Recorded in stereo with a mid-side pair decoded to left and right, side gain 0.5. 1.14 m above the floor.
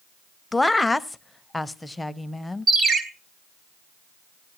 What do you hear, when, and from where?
0.5 s a woman speaking: 15° left, 0.6 m
2.7 s a ringtone: 50° right, 3 m